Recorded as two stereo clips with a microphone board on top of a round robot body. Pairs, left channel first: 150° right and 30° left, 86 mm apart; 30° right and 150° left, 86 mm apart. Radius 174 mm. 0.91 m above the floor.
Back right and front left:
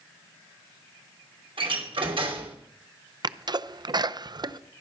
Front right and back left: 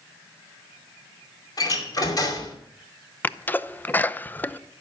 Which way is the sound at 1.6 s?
15° left.